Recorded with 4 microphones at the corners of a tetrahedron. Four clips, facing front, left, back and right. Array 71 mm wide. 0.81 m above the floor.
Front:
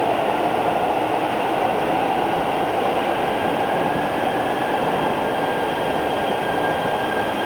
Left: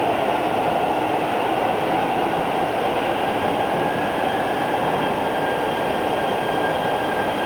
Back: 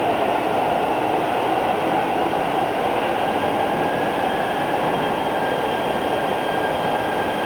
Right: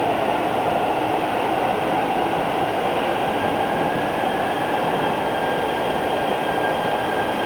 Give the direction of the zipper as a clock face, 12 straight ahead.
No zipper in this recording.